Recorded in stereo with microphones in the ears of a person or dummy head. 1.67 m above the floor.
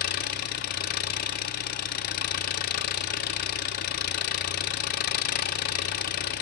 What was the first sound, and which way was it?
An engine running, 45° left (ahead or behind).